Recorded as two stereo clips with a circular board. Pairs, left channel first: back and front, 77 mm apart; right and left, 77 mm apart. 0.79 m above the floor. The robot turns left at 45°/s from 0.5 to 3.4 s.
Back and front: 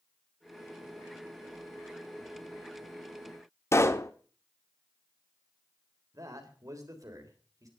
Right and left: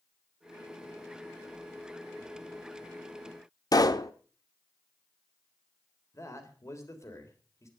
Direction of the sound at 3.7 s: 125° right.